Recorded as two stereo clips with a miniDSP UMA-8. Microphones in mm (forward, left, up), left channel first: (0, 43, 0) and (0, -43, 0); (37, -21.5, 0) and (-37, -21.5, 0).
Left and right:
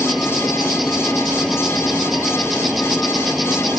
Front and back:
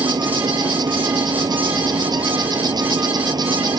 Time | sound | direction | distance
0.0 | an insect | straight behind | ?